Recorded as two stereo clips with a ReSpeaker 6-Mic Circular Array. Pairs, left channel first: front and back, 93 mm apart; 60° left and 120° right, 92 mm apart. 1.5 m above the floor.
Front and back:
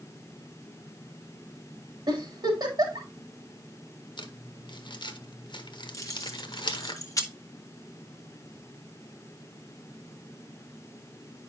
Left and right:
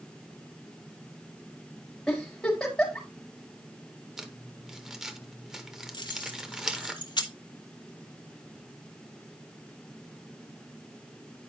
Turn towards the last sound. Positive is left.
turn(degrees=45)